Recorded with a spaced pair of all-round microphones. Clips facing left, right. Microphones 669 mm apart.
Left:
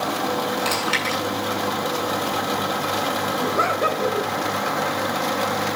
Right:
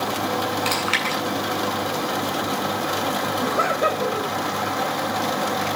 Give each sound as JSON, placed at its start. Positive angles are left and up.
{"t": 0.7, "sound": "chewing", "side_deg": 65, "distance_m": 7.0}
{"t": 3.4, "sound": "laughter", "side_deg": -20, "distance_m": 3.0}